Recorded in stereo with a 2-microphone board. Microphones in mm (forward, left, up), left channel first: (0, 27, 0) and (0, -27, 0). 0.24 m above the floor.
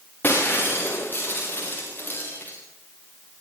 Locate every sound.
0.2 s breaking glass: 35° left (ahead or behind), 8 m